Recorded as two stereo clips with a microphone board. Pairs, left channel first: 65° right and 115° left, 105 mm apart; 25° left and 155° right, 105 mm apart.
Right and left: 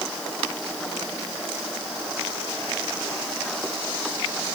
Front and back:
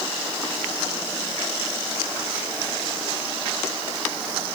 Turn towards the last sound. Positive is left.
No sound to turn to.